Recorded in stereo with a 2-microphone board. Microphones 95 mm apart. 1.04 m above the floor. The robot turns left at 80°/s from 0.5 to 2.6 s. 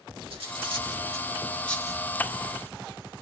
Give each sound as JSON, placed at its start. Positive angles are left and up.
{"t": 0.3, "sound": "cutlery clinking", "side_deg": -75, "distance_m": 1.4}